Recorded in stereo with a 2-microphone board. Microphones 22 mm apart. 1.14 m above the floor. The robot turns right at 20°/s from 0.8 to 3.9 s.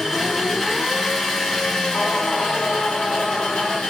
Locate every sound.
0.0 s an engine running: 5° left, 1.9 m; by 3.9 s 70° left, 1.9 m
1.9 s singing: 105° left, 0.9 m; by 3.8 s 145° left, 0.9 m